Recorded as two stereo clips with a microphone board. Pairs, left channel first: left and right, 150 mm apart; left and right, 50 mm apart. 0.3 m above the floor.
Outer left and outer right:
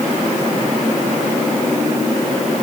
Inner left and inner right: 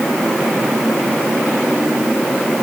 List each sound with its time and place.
Only background noise.